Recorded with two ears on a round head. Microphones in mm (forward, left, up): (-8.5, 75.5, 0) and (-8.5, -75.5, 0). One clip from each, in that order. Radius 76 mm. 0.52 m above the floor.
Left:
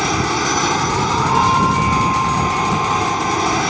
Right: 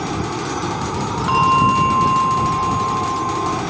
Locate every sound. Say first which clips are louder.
0.0 s an aircraft: left 6 dB; 60° left (ahead or behind)
1.3 s a bell: right 3 dB; 75° right (ahead or behind)